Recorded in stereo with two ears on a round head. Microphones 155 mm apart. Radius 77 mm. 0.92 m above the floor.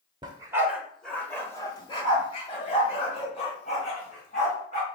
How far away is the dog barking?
About 0.7 m.